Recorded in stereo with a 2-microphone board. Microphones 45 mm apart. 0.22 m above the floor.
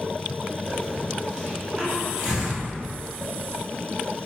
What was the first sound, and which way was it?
A hiss, 10° right (ahead or behind).